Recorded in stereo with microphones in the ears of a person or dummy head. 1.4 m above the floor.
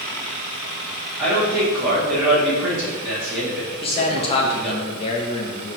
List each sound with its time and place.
1.2 s a man speaking: 5° right (ahead or behind), 1.9 m
3.8 s a man speaking: 30° left (ahead or behind), 0.6 m